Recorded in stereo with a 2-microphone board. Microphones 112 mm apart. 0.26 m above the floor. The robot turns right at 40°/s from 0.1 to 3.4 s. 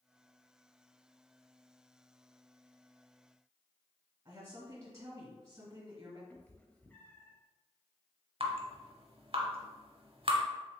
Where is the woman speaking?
30° right (ahead or behind), 1.2 m.